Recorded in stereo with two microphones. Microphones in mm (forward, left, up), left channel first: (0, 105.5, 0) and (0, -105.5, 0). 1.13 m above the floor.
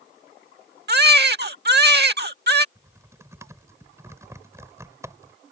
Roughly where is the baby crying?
Right.